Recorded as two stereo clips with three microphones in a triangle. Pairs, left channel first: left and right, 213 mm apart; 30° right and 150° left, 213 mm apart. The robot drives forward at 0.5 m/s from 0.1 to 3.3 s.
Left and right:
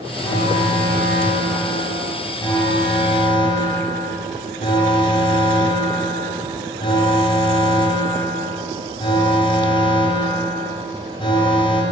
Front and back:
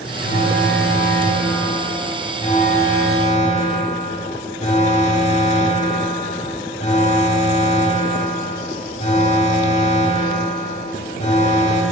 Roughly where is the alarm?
Ahead.